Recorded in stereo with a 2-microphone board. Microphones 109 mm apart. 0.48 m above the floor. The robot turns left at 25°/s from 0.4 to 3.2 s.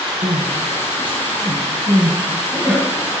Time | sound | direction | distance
0.2 | crying | 60° right (ahead or behind) | 7 m